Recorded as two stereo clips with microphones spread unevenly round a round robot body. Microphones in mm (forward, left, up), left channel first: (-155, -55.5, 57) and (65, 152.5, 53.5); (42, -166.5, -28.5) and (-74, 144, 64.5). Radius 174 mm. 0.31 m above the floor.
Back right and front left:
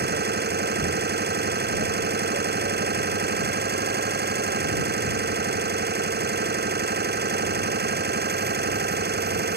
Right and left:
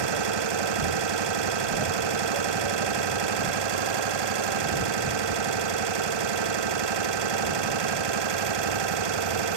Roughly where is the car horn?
I don't hear a car horn.